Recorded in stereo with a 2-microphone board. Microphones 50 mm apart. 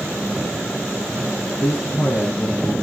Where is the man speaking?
50° left (ahead or behind), 5 m; by 2.7 s 60° left (ahead or behind), 5 m.